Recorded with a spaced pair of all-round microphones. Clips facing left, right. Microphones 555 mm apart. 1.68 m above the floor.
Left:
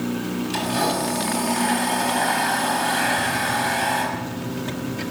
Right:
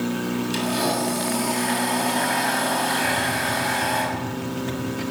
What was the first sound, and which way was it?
A blender, 80° left.